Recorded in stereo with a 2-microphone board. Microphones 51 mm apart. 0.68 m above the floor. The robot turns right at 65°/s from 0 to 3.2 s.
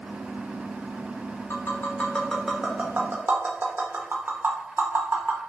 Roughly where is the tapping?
Left.